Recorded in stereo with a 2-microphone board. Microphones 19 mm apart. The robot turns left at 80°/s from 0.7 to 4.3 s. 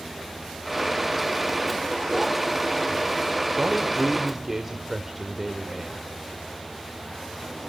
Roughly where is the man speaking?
Right.